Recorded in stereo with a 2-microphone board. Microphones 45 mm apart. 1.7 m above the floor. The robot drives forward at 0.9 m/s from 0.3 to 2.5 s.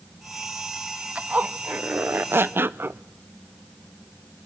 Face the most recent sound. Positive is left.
turn(degrees=-55)  # may be behind; listen again after turning